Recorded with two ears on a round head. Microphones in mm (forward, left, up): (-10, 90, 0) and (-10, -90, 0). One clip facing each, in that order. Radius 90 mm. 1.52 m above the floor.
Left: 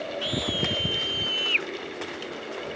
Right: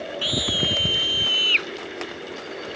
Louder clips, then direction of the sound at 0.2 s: Right 2 dB; 60° right (ahead or behind).